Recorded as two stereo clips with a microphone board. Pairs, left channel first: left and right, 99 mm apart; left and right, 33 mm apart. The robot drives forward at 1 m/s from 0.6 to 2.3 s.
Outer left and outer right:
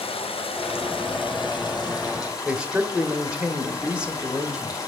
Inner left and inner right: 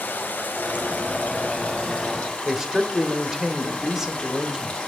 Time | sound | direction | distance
0.0 | running water | 70° left (ahead or behind) | 1.6 m
2.5 | a man speaking | 10° right (ahead or behind) | 0.9 m